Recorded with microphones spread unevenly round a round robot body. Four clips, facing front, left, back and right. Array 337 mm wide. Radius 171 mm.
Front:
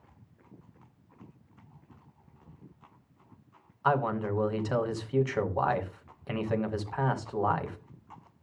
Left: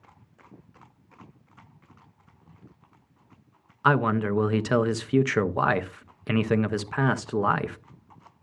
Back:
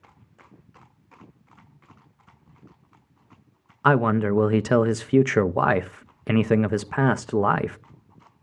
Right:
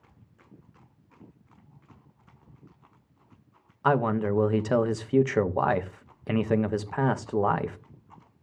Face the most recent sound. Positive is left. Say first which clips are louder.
# left 1 dB, back 8 dB
turn(degrees=170)